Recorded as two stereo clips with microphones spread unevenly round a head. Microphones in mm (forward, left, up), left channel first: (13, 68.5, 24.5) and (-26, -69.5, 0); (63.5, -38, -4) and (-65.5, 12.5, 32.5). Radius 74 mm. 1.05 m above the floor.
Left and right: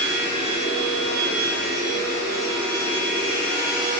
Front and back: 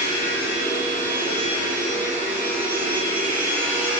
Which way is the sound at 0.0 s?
100° right.